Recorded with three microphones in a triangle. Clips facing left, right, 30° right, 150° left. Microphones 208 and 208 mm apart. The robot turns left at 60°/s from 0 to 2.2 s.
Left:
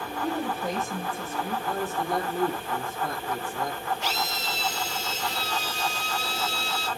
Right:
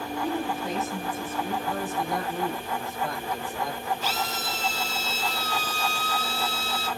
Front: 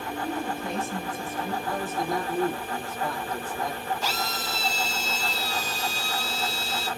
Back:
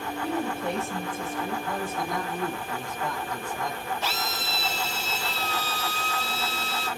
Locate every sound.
0.2 s a woman speaking: 160° left, 4 m; by 1.6 s 80° left, 4 m
1.7 s a man speaking: 85° left, 4.5 m; by 3.9 s 55° left, 4.5 m
4.0 s a drill: 80° left, 5.5 m